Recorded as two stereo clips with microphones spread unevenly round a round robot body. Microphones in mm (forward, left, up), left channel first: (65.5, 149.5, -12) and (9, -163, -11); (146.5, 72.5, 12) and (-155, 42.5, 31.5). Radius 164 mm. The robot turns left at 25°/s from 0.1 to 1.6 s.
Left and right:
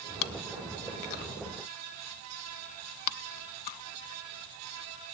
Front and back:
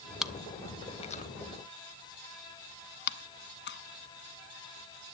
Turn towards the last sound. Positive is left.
turn(degrees=60)